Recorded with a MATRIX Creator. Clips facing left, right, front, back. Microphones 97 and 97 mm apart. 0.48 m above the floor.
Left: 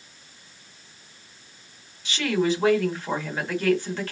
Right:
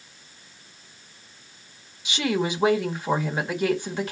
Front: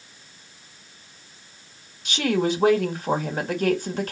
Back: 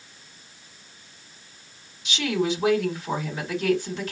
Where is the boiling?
No boiling in this recording.